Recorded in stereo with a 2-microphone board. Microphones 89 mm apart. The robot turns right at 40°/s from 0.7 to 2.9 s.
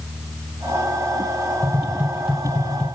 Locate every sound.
1.6 s tapping: 35° right (ahead or behind), 4 m; by 2.9 s 10° left (ahead or behind), 4 m